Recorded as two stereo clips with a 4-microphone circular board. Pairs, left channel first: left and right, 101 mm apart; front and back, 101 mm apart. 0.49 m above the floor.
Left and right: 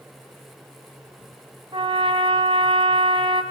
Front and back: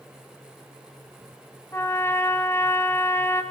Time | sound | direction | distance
1.7 | a trumpet | 65° right | 1.5 m